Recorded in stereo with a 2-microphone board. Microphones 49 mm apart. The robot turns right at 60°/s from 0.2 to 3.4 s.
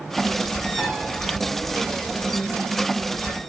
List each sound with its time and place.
0.8 s a piano: 30° right (ahead or behind), 4.5 m; by 1.0 s 15° right (ahead or behind), 4.5 m